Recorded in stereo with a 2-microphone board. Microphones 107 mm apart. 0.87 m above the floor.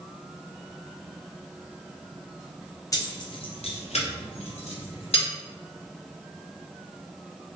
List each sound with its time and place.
2.9 s keys jangling: 35° left (ahead or behind), 0.7 m; by 5.3 s 60° left (ahead or behind), 1.0 m